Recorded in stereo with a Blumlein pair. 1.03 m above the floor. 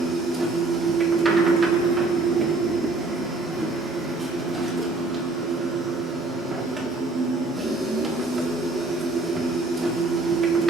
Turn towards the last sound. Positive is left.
turn(degrees=-15)